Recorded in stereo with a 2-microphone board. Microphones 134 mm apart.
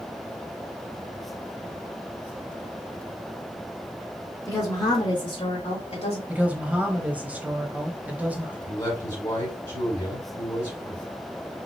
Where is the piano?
No piano in this recording.